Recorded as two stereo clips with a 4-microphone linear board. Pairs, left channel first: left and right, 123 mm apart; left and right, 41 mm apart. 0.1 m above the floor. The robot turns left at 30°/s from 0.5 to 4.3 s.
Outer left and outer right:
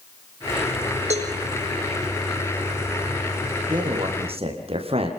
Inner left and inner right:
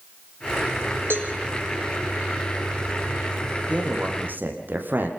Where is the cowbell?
65° right (ahead or behind), 4.5 m; by 1.3 s 55° right (ahead or behind), 4.5 m.